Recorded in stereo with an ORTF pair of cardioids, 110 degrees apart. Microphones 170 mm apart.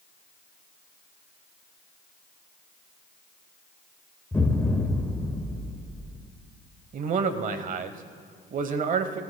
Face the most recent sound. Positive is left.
turn(degrees=-50)